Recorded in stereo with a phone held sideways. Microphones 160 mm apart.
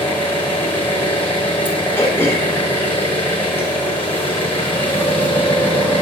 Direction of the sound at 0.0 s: 15° left (ahead or behind).